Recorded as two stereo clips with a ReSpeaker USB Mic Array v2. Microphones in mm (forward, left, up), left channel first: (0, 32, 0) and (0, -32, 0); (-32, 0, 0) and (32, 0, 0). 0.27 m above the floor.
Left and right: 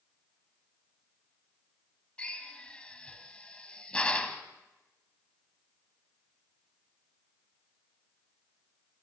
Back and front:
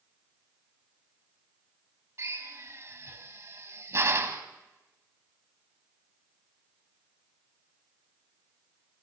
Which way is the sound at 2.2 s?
25° left.